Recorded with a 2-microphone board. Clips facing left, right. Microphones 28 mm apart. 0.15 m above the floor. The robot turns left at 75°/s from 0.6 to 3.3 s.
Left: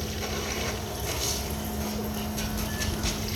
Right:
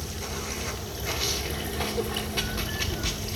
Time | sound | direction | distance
0.0 | running water | 10° left | 1.8 m